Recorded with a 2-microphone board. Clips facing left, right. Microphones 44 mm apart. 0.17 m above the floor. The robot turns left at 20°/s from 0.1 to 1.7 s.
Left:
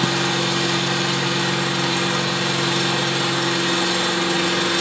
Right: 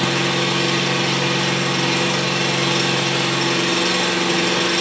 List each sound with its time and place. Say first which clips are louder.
0.0 s an engine running: right 1 dB; 65° right, 1.7 m; by 4.8 s 95° right, 1.7 m